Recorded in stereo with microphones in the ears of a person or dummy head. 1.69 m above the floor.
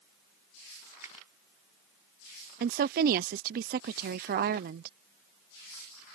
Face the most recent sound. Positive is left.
turn(degrees=-50)  # may be behind; listen again after turning